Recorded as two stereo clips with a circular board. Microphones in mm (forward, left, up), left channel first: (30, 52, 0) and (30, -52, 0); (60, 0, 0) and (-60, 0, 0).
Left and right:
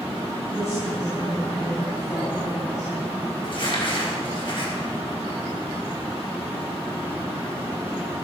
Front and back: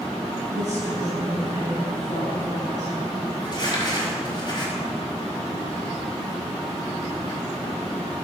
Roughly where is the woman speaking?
Ahead left.